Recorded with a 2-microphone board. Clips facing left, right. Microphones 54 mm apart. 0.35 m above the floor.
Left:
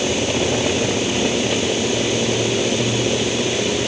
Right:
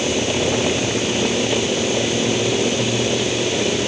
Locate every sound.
Only background noise.